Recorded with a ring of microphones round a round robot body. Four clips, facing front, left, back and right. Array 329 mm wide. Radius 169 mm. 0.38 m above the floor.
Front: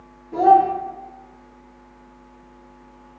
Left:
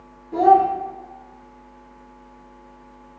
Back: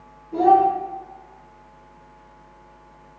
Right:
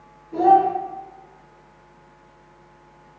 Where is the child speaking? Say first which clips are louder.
Left 1 dB, front 2 dB; 55° left, 0.6 m.